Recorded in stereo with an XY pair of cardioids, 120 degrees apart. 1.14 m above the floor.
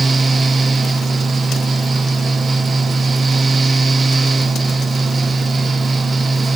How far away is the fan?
About 1.0 m.